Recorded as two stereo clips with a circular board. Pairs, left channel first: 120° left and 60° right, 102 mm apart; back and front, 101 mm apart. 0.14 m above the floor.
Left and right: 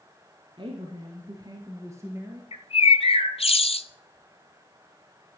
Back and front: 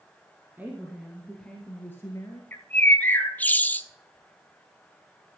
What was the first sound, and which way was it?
A woman speaking, 70° right.